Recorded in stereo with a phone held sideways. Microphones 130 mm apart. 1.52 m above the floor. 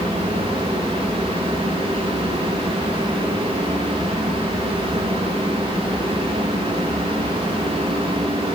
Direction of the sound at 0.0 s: 40° right (ahead or behind).